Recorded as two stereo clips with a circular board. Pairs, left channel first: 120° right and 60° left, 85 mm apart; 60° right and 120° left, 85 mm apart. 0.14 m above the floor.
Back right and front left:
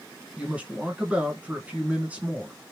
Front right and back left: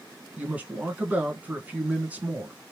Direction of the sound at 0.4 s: 95° left.